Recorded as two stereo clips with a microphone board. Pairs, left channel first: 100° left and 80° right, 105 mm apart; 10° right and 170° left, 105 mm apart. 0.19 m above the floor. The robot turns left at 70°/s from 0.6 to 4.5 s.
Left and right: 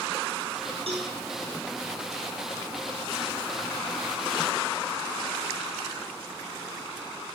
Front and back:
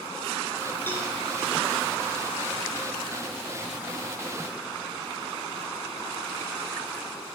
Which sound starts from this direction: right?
A cowbell, at 0.9 s.